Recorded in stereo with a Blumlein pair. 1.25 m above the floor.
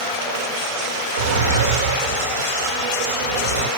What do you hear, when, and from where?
1.2 s a drawer: 55° right, 1.5 m